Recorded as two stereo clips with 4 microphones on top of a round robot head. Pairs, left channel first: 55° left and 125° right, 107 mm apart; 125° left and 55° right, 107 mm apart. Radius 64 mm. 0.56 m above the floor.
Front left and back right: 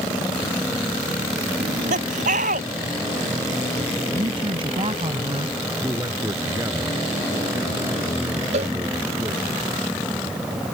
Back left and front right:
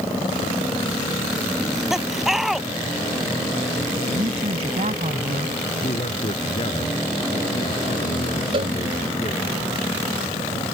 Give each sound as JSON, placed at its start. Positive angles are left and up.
{"t": 1.6, "sound": "laughter", "azimuth_deg": -140}
{"t": 4.1, "sound": "a man speaking", "azimuth_deg": -80}
{"t": 5.8, "sound": "a man speaking", "azimuth_deg": 170}
{"t": 8.5, "sound": "a cowbell", "azimuth_deg": -95}